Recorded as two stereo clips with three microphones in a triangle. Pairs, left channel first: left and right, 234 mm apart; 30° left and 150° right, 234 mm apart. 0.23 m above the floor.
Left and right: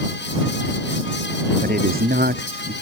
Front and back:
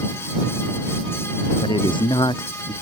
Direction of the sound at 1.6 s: 40° right.